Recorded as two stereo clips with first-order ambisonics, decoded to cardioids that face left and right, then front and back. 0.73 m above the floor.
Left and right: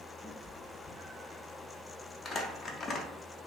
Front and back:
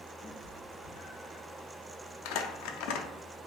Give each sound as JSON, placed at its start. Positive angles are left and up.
{"t": 0.2, "sound": "a cat meowing", "azimuth_deg": -10, "distance_m": 1.3}
{"t": 2.2, "sound": "crumpling", "azimuth_deg": 20, "distance_m": 0.5}